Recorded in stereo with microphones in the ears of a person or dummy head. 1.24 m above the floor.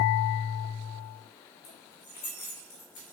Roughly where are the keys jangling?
Left.